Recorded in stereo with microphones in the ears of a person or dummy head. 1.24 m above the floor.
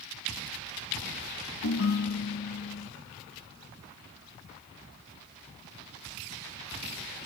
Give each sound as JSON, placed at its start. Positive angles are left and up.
{"t": 1.6, "sound": "a ringtone", "side_deg": 65, "distance_m": 0.8}